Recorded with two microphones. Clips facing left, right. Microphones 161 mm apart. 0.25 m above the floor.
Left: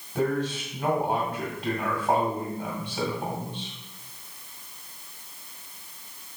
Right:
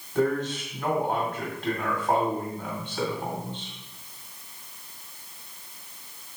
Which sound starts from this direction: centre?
A man speaking, at 0.1 s.